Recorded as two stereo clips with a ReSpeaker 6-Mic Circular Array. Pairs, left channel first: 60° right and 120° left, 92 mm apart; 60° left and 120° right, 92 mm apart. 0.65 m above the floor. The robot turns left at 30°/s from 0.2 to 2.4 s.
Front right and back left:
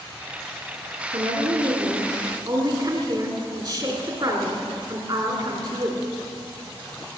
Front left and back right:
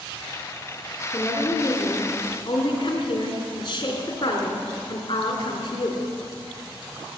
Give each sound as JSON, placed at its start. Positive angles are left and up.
{"t": 1.1, "sound": "a woman speaking", "azimuth_deg": 125, "distance_m": 2.5}